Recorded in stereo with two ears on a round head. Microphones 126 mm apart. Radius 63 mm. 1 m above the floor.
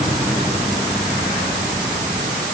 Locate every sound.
Only background noise.